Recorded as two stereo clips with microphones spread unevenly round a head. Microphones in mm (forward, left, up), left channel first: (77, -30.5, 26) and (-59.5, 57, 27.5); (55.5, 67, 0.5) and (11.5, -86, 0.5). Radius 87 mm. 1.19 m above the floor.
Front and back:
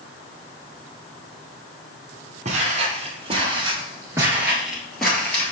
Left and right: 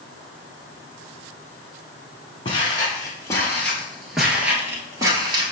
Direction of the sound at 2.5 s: 125° left.